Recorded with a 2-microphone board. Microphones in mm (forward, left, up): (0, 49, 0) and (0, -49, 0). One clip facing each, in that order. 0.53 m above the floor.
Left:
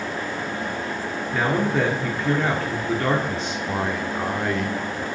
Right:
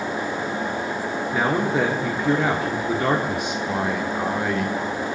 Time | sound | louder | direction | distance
1.3 | a man speaking | even | 15° right (ahead or behind) | 1.2 m
3.7 | a man speaking | even | 5° right (ahead or behind) | 1.1 m